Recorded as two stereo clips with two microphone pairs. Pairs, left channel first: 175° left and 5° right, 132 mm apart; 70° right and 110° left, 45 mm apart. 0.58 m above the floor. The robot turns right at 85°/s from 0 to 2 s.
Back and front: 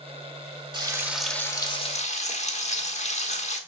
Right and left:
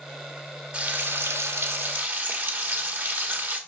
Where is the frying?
45° left, 1.3 m; by 3.6 s 155° left, 1.3 m.